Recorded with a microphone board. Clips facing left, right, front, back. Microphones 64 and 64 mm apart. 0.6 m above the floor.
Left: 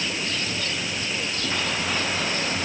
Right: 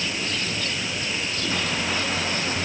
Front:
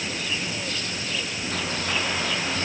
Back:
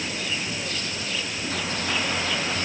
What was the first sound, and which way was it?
Only background noise.